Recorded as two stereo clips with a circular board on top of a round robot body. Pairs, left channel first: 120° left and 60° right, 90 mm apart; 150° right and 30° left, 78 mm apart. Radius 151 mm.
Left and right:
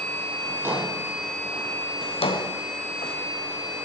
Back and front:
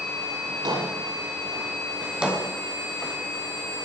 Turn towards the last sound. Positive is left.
turn(degrees=110)